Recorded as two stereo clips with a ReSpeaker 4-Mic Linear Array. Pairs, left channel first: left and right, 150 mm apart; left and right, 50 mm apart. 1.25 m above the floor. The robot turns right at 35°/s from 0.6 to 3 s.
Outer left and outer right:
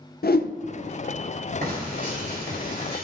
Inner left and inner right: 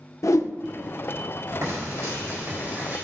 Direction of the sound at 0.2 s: 85° left.